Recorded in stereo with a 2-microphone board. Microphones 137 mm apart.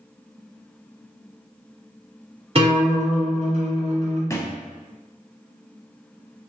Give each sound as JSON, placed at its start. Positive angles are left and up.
{"t": 2.5, "sound": "a guitar", "side_deg": -45, "distance_m": 1.5}
{"t": 4.3, "sound": "a thud", "side_deg": 20, "distance_m": 0.5}